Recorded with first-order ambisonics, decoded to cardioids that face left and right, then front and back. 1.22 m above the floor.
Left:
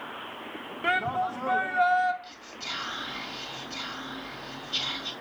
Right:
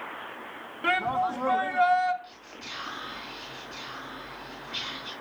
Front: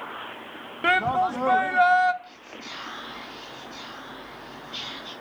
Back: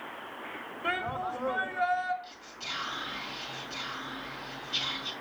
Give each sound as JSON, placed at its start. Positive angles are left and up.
{"t": 0.8, "sound": "a shout", "azimuth_deg": 0, "distance_m": 1.0}
{"t": 2.2, "sound": "whispering", "azimuth_deg": 105, "distance_m": 2.0}